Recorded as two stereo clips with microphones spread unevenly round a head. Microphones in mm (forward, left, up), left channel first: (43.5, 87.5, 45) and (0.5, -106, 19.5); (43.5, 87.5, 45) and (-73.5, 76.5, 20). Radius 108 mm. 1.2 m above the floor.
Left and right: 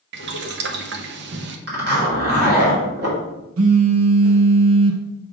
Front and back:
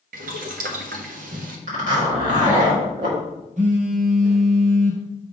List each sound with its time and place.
0.1 s boiling: 145° right, 0.7 m
1.7 s a zipper: 145° right, 3 m
3.6 s a phone buzzing: 120° right, 0.7 m